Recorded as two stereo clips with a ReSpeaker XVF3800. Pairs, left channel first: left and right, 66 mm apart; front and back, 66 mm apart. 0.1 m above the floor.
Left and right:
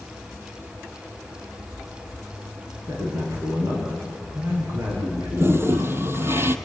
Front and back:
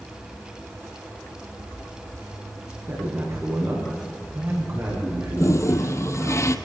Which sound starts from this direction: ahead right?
A toilet flushing, at 5.4 s.